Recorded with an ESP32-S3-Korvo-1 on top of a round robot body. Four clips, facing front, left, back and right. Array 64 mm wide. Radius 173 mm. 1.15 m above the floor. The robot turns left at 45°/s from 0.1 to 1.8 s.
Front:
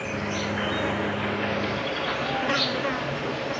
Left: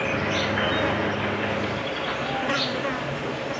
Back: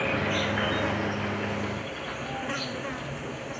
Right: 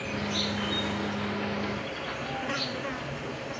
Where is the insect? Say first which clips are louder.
Left 7 dB, back 2 dB; 115° left; by 3.6 s 40° left.